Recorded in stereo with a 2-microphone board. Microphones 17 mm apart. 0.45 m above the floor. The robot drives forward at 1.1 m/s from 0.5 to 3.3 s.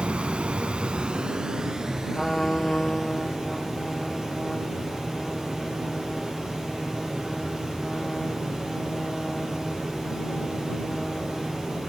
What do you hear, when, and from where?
0.0 s running water: 85° right, 1.0 m; by 11.9 s 20° right (ahead or behind), 3 m
2.1 s a trumpet: 25° left (ahead or behind), 0.7 m